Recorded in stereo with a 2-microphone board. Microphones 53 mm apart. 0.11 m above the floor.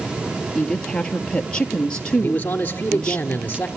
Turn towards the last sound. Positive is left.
turn(degrees=30)  # may be behind; listen again after turning